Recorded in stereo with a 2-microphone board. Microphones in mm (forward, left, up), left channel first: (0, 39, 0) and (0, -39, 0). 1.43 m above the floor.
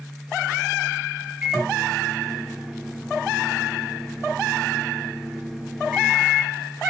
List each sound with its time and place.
1.4 s a microwave: 5° right (ahead or behind), 1.0 m